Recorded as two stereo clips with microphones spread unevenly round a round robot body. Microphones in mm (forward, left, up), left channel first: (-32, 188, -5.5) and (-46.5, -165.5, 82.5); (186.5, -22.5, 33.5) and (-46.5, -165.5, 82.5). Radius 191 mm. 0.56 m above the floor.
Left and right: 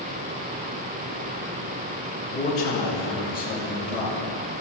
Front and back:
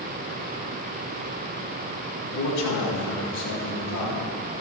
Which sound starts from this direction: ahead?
A man speaking, at 2.2 s.